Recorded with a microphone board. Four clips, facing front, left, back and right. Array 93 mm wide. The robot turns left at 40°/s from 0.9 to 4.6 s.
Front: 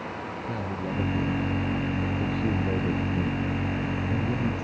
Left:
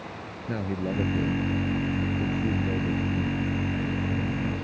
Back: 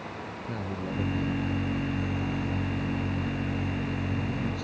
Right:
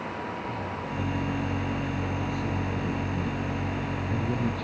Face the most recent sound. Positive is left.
turn(degrees=-60)